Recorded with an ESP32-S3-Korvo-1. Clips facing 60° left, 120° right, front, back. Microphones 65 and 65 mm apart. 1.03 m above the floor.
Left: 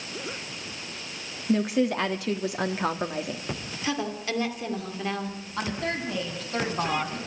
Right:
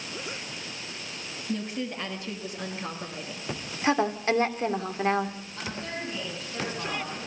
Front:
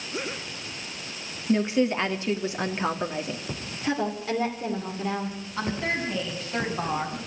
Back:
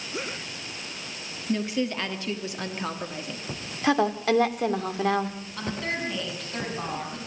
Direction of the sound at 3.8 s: 175° right.